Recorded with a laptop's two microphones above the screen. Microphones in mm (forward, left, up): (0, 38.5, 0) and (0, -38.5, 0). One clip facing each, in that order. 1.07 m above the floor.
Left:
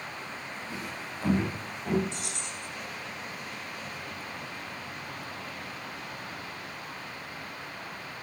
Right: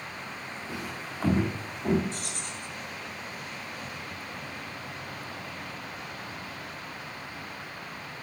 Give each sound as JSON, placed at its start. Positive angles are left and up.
{"t": 0.7, "sound": "footsteps", "side_deg": -45, "distance_m": 5.0}
{"t": 2.1, "sound": "keys jangling", "side_deg": -45, "distance_m": 6.5}